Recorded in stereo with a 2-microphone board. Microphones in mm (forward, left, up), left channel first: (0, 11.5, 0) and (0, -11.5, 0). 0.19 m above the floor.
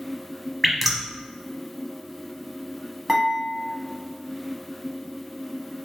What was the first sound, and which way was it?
Dripping, 10° right (ahead or behind).